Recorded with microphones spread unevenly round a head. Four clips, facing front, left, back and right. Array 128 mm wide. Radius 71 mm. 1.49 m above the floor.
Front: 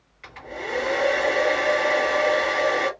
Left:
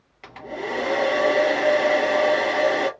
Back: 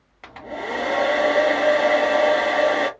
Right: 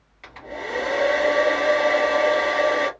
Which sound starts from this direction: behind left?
A hair dryer, at 0.2 s.